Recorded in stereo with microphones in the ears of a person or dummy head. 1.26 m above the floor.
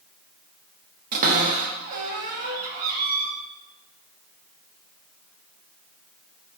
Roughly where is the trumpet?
I don't hear a trumpet.